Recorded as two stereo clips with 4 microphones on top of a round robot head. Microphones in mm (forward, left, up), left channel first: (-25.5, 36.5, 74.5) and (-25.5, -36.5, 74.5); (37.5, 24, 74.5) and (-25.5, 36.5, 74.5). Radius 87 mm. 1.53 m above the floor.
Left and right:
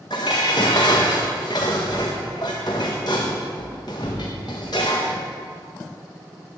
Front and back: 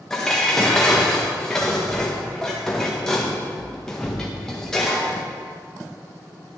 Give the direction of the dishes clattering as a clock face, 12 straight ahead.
10 o'clock.